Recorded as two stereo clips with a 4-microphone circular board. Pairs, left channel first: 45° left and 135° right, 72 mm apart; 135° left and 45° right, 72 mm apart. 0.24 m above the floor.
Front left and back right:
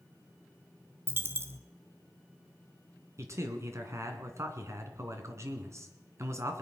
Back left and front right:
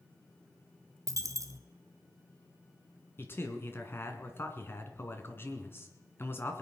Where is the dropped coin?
80° right, 0.9 m.